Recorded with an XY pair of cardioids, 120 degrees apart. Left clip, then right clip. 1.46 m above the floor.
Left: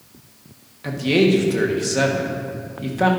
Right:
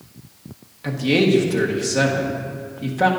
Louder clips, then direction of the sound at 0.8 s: Left 1 dB; straight ahead.